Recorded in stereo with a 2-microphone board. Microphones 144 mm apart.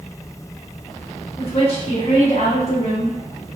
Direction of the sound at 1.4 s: 45° left (ahead or behind).